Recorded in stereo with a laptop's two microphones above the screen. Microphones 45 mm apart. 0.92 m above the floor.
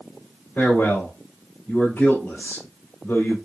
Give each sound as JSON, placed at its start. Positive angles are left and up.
{"t": 0.6, "sound": "a man speaking", "side_deg": 45, "distance_m": 2.5}